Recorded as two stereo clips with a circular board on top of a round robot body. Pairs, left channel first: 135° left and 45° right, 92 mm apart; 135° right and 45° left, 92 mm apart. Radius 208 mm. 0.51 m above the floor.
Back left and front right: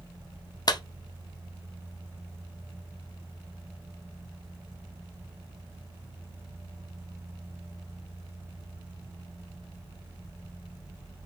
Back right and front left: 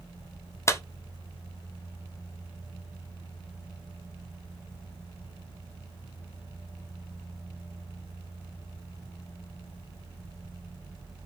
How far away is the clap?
About 1.4 m.